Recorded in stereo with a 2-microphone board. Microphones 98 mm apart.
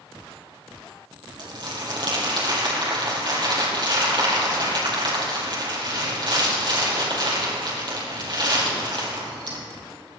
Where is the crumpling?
50° right (ahead or behind), 4 m.